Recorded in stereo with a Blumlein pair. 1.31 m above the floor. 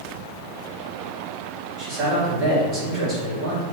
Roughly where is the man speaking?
Ahead right.